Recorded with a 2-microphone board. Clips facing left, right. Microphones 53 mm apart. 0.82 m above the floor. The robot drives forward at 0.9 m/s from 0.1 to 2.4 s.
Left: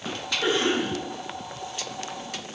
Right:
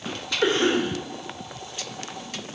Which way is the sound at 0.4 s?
55° right (ahead or behind).